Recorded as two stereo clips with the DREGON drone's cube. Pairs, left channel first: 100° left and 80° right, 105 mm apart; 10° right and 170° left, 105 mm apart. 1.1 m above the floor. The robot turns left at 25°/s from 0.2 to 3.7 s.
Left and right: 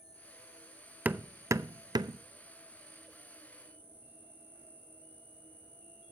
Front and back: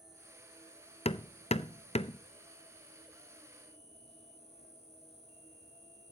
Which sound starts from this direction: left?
An insect, at 0.0 s.